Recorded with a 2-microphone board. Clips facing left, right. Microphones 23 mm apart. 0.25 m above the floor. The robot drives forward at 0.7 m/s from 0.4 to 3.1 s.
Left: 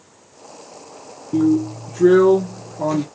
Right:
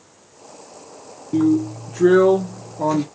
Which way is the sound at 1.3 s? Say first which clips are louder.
Left 1 dB; 20° right (ahead or behind).